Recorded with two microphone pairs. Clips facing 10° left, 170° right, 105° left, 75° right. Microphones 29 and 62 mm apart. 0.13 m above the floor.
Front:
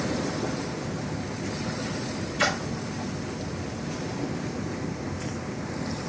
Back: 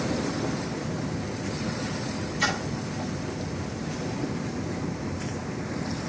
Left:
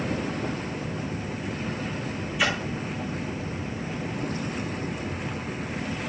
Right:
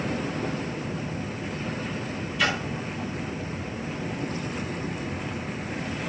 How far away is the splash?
About 5.5 m.